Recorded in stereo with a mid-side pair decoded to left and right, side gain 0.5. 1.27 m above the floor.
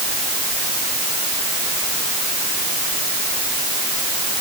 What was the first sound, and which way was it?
Only background noise.